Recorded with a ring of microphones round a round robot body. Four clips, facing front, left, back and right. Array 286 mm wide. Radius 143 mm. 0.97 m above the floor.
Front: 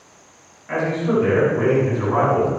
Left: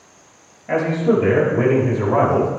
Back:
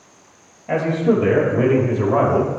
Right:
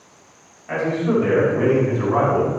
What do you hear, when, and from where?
0.7 s a man speaking: 145° left, 5.5 m; by 2.5 s 140° left, 4.5 m